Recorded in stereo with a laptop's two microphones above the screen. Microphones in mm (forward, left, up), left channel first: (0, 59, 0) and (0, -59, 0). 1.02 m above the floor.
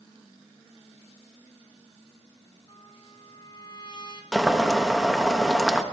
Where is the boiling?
5° right (ahead or behind), 1.4 m.